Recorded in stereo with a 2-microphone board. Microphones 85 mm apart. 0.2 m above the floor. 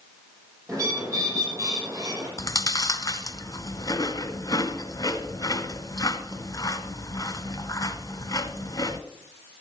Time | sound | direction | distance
0.7 | a bird | 40° right (ahead or behind) | 8 m
2.4 | chewing | 45° left (ahead or behind) | 1.1 m